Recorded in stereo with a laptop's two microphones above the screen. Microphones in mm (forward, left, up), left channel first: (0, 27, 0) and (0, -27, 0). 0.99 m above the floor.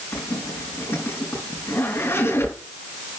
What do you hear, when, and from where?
0.1 s a zipper: 60° left (ahead or behind), 5 m